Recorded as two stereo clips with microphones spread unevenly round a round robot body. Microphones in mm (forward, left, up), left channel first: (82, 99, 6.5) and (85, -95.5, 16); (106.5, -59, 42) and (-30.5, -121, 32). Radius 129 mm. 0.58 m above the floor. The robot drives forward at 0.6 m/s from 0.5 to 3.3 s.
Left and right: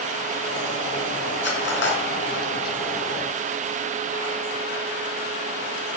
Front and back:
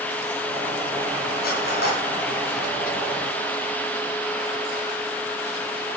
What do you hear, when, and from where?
1.4 s cutlery clinking: 65° left, 4 m; by 2.0 s 70° left, 4 m